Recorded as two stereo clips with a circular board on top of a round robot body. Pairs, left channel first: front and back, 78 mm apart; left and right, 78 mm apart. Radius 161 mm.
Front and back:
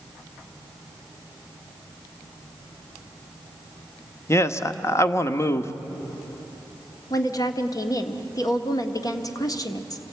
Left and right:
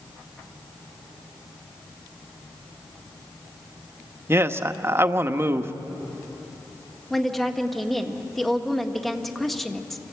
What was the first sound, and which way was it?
A man speaking, 45° right.